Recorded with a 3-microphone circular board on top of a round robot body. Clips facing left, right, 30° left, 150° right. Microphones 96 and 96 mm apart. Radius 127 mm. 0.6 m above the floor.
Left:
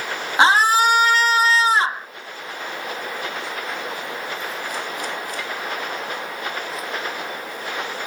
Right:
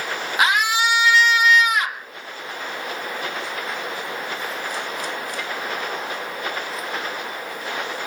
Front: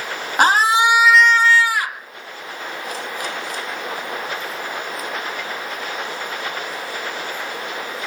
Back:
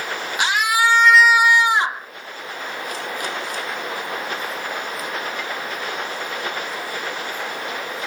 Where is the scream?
40° left; by 2.1 s 150° left.